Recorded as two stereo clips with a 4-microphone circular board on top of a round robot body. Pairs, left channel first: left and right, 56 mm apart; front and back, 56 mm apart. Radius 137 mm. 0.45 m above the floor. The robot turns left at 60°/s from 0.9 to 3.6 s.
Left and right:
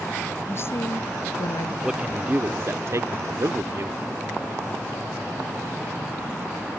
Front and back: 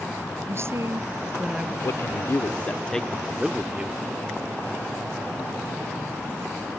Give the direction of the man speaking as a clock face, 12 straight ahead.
12 o'clock.